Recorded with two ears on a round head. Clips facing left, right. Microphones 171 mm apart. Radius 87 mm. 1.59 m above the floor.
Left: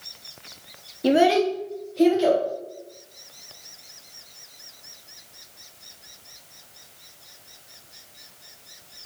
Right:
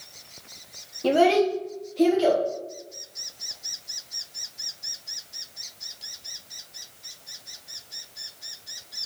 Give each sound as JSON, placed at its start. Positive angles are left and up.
{"t": 1.0, "sound": "a child speaking", "side_deg": 15, "distance_m": 0.5}